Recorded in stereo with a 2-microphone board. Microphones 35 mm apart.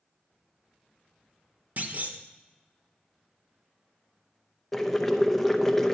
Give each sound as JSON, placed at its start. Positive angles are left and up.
{"t": 1.8, "sound": "a clunk", "side_deg": -50, "distance_m": 0.7}
{"t": 4.7, "sound": "boiling", "side_deg": 10, "distance_m": 0.6}